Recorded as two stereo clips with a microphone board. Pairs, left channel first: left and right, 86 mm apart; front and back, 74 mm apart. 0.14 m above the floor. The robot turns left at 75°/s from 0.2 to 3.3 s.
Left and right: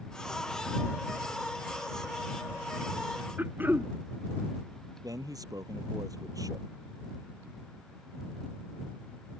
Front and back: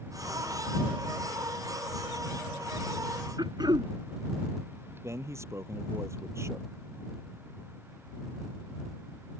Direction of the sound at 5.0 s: 130° right.